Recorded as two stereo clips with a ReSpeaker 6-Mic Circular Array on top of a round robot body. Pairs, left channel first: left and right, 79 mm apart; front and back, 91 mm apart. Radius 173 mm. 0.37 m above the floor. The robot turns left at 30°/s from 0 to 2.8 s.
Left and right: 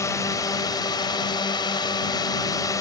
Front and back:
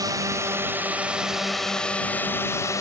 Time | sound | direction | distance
0.0 | a drone | 135° left | ?